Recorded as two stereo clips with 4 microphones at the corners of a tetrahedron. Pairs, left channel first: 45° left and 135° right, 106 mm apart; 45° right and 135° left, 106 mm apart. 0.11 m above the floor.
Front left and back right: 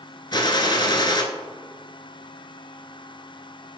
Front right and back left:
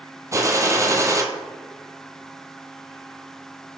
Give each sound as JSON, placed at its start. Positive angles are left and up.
{"t": 0.3, "sound": "a gunshot", "azimuth_deg": 80, "distance_m": 0.8}